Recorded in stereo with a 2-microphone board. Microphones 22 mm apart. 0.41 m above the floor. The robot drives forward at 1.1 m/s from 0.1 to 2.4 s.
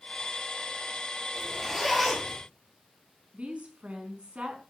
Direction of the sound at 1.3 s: 5° right (ahead or behind).